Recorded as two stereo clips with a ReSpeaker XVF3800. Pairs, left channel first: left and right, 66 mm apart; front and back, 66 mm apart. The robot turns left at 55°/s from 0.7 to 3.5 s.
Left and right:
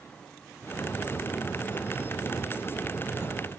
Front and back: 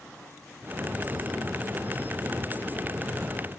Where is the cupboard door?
I don't hear a cupboard door.